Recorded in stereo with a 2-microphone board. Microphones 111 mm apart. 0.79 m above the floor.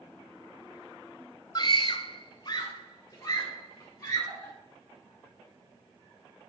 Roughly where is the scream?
Left.